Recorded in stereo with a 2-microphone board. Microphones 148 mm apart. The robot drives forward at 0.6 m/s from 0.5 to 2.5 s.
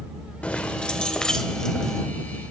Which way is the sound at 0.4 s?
10° left (ahead or behind).